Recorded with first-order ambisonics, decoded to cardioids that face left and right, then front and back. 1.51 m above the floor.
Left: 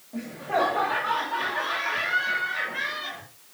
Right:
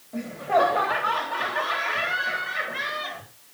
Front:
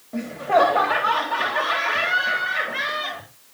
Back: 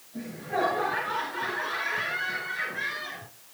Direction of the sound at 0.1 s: 10° right.